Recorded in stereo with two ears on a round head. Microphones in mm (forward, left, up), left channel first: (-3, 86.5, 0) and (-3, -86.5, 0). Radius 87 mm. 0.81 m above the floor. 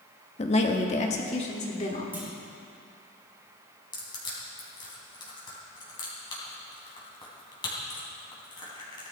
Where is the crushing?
25° left (ahead or behind), 3.5 m.